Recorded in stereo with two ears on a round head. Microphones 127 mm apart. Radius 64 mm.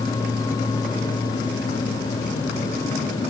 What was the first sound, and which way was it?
Only background noise.